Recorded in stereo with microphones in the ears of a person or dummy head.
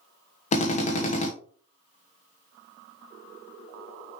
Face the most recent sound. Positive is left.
turn(degrees=35)  # may be behind; listen again after turning